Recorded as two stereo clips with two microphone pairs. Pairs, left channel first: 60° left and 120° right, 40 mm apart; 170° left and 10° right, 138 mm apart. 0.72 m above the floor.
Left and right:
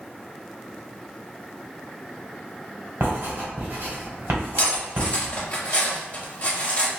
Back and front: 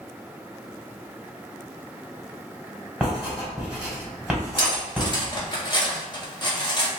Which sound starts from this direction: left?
Cutlery clinking, at 4.6 s.